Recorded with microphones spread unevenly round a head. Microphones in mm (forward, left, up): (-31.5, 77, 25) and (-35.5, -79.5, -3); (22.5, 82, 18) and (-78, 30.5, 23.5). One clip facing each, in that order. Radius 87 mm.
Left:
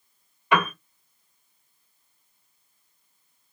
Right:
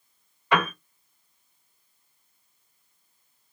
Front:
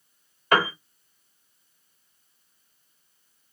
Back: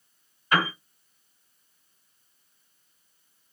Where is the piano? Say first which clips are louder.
Left 1 dB, front 3 dB; 20° left, 2 m.